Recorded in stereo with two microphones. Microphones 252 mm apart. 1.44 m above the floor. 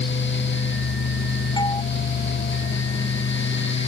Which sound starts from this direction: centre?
A doorbell, at 1.6 s.